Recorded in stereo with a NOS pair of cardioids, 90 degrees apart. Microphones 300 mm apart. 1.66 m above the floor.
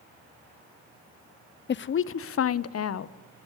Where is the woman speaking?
35° left, 0.7 m; by 3.1 s 55° left, 1.5 m.